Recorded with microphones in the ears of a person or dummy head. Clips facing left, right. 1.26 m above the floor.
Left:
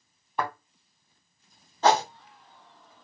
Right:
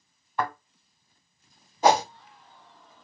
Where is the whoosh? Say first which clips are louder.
Right 1 dB; 10° right (ahead or behind), 0.7 m.